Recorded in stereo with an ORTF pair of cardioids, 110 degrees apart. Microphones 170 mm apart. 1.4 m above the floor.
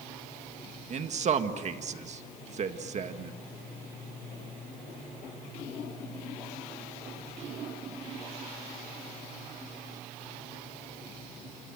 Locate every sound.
0.9 s a man speaking: 45° right, 1.9 m